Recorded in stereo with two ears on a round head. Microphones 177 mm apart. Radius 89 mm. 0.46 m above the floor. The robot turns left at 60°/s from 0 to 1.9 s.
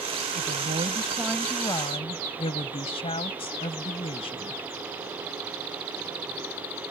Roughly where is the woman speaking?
Behind right.